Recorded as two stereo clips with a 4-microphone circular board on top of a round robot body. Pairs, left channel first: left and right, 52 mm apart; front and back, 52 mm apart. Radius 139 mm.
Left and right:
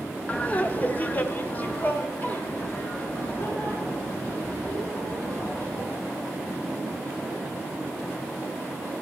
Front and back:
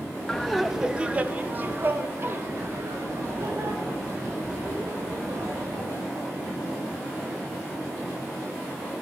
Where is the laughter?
65° left, 0.9 m; by 5.9 s 155° left, 3.5 m.